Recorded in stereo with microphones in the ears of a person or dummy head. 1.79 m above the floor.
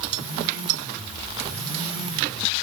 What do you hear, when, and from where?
Only background noise.